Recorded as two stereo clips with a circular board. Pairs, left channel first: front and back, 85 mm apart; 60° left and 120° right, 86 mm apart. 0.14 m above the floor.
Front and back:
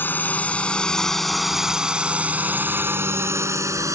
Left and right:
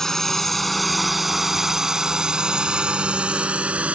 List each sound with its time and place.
0.0 s a drone: 20° right; by 4.0 s 175° left